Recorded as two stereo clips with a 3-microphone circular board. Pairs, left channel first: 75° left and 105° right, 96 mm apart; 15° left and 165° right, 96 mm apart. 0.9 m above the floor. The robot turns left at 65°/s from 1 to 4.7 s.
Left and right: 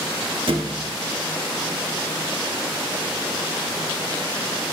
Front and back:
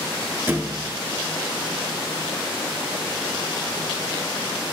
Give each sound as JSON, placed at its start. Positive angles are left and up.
{"t": 0.5, "sound": "a thud", "azimuth_deg": -100, "distance_m": 0.6}